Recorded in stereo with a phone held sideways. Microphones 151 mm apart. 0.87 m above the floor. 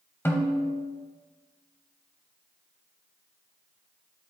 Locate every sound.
0.2 s a snare drum: 15° left (ahead or behind), 1.1 m